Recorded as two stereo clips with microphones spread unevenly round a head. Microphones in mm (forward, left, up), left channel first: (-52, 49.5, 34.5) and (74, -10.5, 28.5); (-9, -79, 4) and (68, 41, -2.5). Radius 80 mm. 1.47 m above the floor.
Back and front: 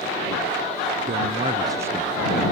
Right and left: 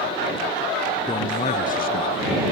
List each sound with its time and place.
1.1 s a man speaking: 60° right; by 2.3 s 115° right